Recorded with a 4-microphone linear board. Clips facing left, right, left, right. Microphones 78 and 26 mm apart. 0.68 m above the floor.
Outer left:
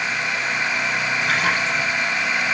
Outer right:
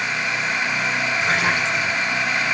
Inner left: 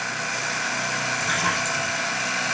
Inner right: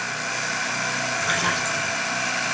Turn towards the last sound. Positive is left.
turn(degrees=-25)  # may be behind; listen again after turning